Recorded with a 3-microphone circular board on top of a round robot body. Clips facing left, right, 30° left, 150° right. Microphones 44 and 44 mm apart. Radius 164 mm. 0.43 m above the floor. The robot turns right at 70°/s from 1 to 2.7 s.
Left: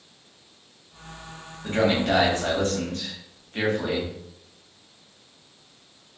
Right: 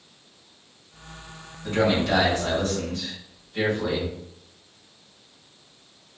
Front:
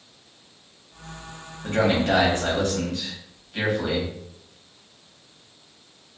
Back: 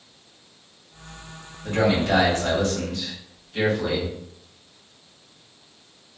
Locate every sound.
1.6 s a man speaking: 35° left, 2.0 m; by 4.1 s 110° left, 2.0 m